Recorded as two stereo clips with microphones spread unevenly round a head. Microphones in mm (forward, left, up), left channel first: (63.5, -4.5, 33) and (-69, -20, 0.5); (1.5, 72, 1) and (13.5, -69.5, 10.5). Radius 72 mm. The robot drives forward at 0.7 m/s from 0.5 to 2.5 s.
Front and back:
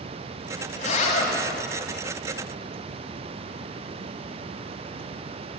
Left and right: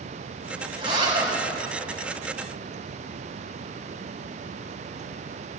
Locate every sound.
0.8 s a zipper: 30° right, 6.5 m